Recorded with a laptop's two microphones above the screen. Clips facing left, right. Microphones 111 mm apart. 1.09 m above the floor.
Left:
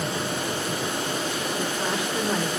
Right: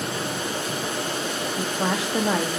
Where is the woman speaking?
80° right, 1.7 m.